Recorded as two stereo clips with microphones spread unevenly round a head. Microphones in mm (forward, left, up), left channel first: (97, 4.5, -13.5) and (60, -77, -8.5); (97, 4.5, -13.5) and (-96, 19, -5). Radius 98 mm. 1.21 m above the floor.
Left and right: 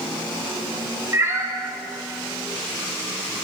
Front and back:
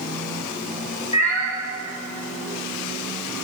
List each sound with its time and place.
1.1 s a cat meowing: 60° right, 2 m